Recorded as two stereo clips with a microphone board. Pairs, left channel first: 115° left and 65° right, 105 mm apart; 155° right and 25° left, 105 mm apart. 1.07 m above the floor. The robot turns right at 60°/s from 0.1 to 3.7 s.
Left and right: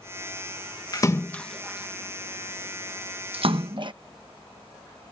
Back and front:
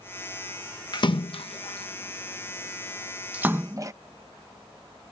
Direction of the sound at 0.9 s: 160° left.